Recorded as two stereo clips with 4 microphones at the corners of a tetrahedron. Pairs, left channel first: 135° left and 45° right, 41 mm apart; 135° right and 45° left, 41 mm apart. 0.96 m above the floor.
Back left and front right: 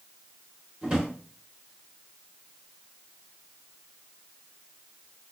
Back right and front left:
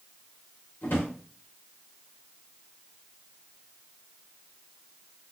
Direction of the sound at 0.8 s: 110° right.